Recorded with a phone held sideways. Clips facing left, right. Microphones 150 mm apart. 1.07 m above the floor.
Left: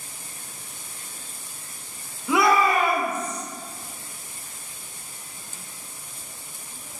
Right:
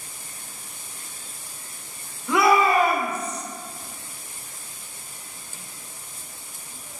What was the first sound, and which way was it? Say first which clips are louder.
A shout: right 1 dB; 10° left (ahead or behind).